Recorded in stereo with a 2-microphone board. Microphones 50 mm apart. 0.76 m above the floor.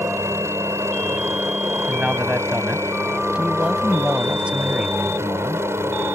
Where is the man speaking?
25° right (ahead or behind).